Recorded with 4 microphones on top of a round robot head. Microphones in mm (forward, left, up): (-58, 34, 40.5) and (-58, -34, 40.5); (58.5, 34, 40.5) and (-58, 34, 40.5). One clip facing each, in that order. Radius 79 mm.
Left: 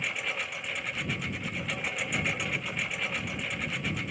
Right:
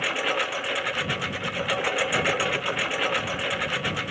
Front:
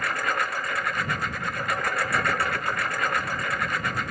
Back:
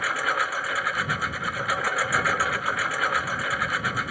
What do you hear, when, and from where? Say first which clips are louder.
0.0 s a lawn mower: right 8 dB, even; 95° right